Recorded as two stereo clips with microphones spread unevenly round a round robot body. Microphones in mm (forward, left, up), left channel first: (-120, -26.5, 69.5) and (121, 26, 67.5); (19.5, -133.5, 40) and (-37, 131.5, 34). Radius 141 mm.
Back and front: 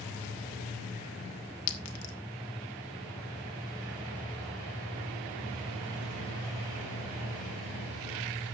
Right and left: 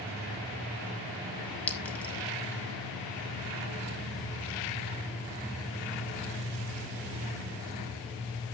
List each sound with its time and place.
1.7 s a clink: 165° right, 1.5 m